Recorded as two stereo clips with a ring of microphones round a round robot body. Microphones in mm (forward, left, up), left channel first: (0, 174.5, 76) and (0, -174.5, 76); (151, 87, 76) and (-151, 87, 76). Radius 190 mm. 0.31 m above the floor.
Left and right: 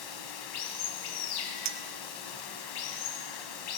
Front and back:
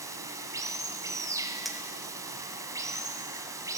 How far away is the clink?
About 1.0 m.